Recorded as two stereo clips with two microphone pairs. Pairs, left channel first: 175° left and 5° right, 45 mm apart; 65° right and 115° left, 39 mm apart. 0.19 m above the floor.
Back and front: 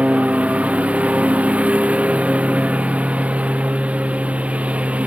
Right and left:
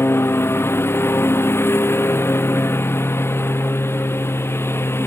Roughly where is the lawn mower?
Ahead right.